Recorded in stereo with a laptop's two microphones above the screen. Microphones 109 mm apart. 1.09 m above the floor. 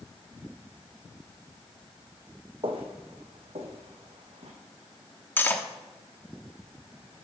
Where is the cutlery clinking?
15° left (ahead or behind), 1.0 m.